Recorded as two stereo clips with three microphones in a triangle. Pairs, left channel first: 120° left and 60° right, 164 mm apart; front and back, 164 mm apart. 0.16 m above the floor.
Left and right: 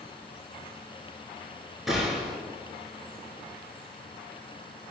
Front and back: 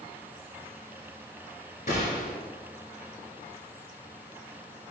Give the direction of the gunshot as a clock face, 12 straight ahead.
11 o'clock.